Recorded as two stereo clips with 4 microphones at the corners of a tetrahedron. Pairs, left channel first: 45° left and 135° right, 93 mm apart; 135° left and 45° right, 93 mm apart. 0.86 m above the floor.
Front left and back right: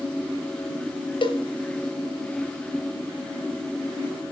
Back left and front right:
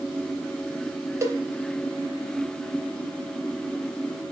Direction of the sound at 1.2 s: 15° left.